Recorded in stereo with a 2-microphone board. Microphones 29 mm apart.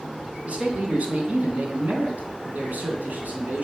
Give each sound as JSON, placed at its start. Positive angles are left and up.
{"t": 0.5, "sound": "a man speaking", "side_deg": -45, "distance_m": 3.0}